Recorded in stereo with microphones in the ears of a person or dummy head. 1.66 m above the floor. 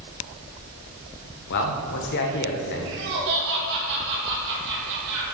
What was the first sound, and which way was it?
A man speaking, 60° left (ahead or behind).